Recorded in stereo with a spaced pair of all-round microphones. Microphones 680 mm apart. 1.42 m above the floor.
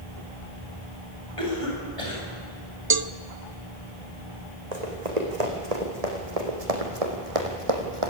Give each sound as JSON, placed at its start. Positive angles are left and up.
{"t": 1.4, "sound": "a cough", "side_deg": 50, "distance_m": 10.0}
{"t": 2.9, "sound": "a cowbell", "side_deg": -35, "distance_m": 0.6}
{"t": 4.7, "sound": "running footsteps", "side_deg": -75, "distance_m": 5.0}